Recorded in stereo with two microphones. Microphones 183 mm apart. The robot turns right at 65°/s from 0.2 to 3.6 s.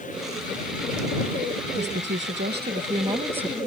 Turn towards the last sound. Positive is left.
turn(degrees=5)